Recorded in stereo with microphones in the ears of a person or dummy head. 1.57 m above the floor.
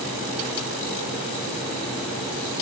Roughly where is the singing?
No singing in this recording.